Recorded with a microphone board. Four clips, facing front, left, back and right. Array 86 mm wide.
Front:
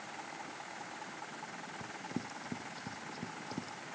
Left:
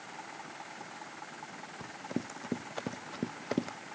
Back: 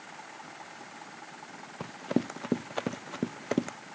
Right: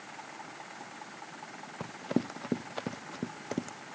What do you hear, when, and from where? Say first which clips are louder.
1.8 s running footsteps: right 6 dB, back 13 dB; 145° right; by 3.8 s 165° left